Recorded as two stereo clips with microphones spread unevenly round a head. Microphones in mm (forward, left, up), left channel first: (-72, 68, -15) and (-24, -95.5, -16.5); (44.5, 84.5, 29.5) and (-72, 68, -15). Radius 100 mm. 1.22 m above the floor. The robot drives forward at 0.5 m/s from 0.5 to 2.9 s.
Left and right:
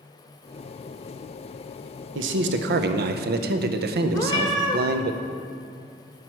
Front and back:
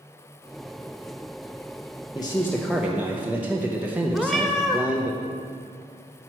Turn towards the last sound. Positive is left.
turn(degrees=60)